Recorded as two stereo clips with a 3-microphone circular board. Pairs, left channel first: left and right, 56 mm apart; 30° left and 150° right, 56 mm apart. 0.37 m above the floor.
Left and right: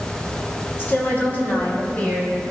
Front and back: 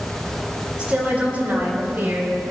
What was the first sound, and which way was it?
A woman speaking, 140° left.